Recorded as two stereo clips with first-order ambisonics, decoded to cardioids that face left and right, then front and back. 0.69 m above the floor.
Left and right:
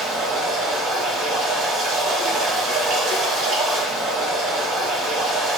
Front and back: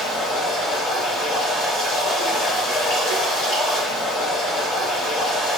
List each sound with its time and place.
0.0 s running water: 50° right, 1.7 m